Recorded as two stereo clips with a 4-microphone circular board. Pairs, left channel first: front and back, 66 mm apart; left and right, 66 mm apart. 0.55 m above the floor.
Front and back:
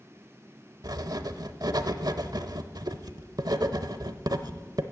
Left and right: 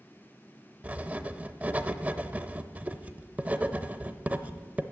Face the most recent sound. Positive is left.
turn(degrees=-155)